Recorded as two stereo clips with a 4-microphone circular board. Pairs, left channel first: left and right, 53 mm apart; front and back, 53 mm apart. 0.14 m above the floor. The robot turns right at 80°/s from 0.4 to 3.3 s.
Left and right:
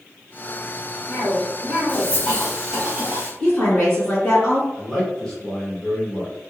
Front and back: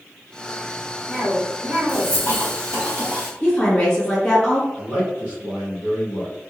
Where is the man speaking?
175° left, 1.4 m.